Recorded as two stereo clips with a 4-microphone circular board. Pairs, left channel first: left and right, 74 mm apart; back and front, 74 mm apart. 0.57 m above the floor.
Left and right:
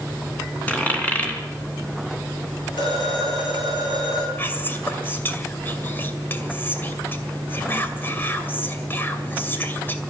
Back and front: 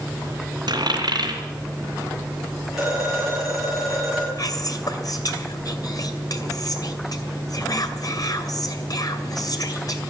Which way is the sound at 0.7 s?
20° left.